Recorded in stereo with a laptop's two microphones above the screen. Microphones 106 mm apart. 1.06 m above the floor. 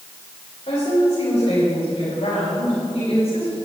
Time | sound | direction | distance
0.7 | a woman speaking | 80° left | 4 m